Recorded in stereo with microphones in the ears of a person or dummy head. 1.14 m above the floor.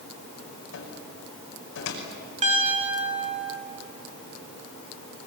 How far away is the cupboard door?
About 6 m.